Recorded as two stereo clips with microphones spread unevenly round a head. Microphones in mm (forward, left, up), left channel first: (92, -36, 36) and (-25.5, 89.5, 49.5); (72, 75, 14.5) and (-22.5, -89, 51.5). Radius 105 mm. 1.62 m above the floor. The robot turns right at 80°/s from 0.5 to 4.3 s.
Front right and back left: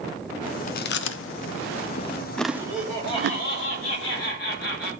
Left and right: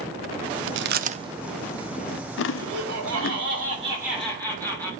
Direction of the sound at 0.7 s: 100° right.